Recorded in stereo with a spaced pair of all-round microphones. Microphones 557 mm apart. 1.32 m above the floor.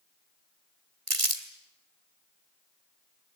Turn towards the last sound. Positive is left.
turn(degrees=-70)  # may be behind; listen again after turning